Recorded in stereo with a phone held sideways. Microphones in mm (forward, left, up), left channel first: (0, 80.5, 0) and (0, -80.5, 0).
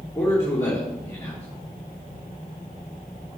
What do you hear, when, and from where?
0.1 s a man speaking: 20° left (ahead or behind), 2.5 m